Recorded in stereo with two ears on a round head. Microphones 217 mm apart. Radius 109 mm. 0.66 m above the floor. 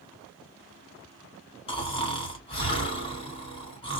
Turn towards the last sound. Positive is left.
turn(degrees=25)  # may be behind; listen again after turning